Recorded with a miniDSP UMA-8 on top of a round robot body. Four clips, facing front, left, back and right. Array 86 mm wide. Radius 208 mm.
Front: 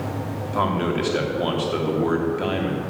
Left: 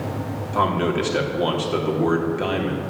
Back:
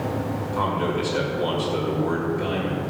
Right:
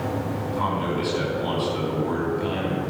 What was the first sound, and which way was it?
A man speaking, 55° left.